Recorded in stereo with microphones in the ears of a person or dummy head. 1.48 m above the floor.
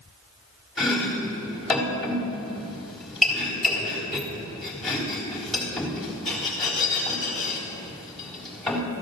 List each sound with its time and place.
0.8 s chopping: centre (ahead or behind), 3.5 m